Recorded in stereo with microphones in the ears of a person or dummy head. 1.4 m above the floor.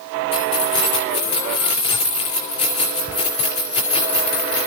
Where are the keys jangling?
35° left (ahead or behind), 3.5 m.